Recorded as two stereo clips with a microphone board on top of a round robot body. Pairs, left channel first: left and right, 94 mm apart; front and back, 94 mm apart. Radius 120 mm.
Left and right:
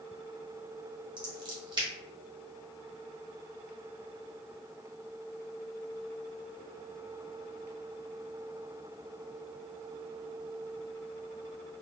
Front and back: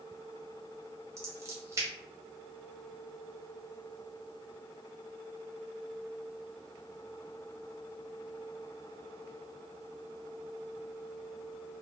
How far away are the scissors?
About 1.1 m.